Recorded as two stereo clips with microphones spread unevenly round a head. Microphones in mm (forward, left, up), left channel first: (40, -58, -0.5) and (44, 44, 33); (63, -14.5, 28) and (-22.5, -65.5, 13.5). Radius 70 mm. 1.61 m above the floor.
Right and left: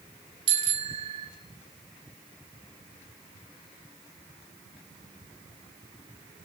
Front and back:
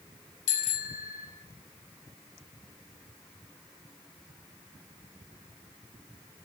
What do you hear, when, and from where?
0.5 s a bicycle bell: 60° left, 5 m